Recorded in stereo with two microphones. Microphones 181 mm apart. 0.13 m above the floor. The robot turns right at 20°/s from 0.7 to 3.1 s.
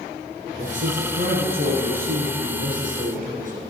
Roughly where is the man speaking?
Behind right.